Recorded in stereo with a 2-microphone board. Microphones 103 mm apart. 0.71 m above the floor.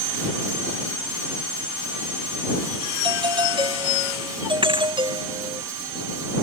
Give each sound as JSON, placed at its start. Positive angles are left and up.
{"t": 3.0, "sound": "a doorbell", "side_deg": -55}
{"t": 4.6, "sound": "a thud", "side_deg": -55}